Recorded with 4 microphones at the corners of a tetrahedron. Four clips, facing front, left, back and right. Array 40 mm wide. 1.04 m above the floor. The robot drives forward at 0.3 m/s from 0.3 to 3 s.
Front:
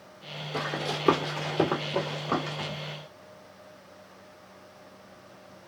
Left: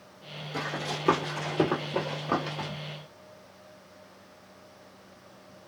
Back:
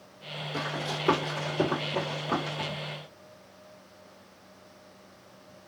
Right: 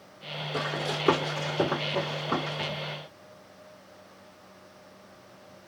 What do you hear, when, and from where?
0.5 s running footsteps: 30° right, 1.3 m; by 2.7 s 95° left, 1.4 m